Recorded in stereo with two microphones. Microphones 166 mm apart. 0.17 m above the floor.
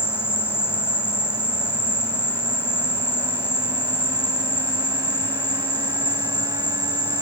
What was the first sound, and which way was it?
An insect, 10° left (ahead or behind).